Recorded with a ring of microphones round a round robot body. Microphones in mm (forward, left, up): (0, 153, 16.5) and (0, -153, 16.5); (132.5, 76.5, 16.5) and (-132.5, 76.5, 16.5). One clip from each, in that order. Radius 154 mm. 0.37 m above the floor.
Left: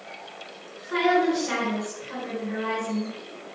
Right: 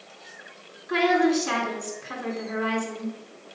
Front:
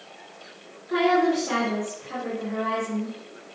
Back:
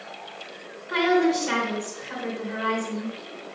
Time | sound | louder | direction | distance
0.9 | a woman speaking | right 1 dB, even | 125° right | 4 m